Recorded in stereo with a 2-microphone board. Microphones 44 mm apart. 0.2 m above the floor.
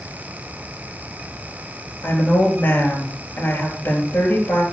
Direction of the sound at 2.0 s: 50° left (ahead or behind).